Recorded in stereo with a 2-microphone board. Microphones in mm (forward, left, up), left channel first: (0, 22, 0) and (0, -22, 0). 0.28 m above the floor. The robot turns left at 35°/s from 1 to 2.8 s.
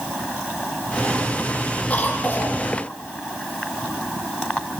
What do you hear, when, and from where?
1.9 s a cough: 30° left (ahead or behind), 9 m; by 2.6 s 55° left (ahead or behind), 9 m